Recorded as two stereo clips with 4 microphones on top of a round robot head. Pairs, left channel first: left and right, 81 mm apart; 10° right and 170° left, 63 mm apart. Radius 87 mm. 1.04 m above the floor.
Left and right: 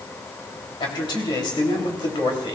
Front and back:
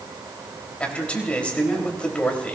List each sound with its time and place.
0.8 s a man speaking: 65° left, 3 m